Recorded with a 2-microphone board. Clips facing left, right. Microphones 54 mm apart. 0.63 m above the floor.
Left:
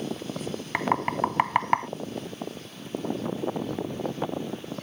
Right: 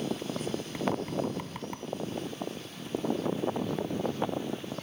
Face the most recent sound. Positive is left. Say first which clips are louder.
# left 7 dB
turn(degrees=70)  # may be behind; listen again after turning